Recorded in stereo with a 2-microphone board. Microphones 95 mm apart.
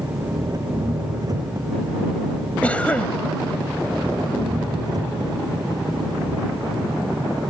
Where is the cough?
15° left (ahead or behind).